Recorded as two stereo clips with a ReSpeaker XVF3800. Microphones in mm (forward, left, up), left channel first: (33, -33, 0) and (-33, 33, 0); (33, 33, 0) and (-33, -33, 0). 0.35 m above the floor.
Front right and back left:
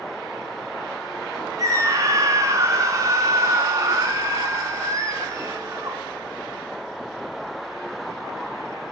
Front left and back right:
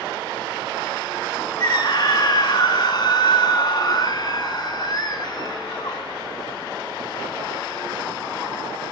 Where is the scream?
85° left, 3.5 m.